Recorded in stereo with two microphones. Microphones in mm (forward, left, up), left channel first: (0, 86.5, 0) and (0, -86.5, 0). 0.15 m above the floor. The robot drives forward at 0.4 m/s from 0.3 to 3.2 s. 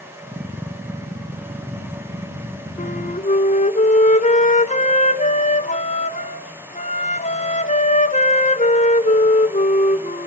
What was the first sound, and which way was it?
A flute, 45° left (ahead or behind).